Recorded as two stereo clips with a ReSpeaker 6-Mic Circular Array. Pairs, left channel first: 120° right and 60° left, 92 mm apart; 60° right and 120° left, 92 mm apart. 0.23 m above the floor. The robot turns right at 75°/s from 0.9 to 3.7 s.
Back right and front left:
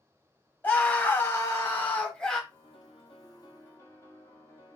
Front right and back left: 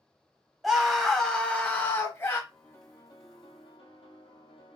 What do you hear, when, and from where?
0.6 s a scream: 155° right, 1.0 m; by 2.4 s 45° right, 1.0 m
2.5 s a piano: 150° right, 1.7 m; by 4.8 s 60° right, 1.7 m